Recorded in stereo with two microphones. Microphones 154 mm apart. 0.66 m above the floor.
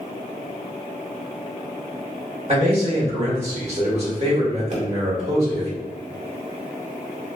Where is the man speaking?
45° right (ahead or behind), 1.6 m.